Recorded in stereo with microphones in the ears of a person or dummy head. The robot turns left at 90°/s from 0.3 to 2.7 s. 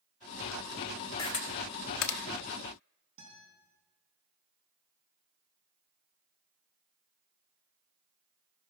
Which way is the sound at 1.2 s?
25° left (ahead or behind).